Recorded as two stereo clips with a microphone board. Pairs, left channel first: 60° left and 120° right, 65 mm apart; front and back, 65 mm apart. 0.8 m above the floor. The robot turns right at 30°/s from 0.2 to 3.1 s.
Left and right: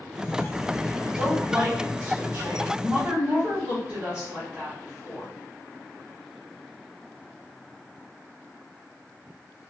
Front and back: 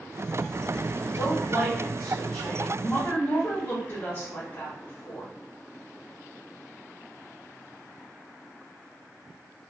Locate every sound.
1.0 s a woman speaking: 120° right, 1.4 m; by 5.3 s 55° right, 1.4 m